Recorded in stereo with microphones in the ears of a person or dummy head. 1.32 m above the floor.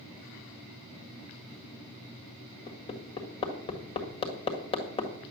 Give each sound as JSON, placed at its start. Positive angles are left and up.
{"t": 2.7, "sound": "hammering", "side_deg": 25, "distance_m": 1.7}